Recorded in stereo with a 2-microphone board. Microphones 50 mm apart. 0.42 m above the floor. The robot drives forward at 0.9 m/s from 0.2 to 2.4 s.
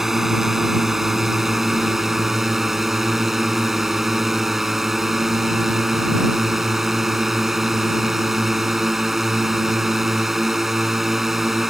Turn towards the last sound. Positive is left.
turn(degrees=-5)  # may be behind; listen again after turning